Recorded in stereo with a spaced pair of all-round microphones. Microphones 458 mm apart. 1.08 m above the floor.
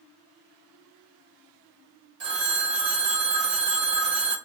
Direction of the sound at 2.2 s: 70° right (ahead or behind).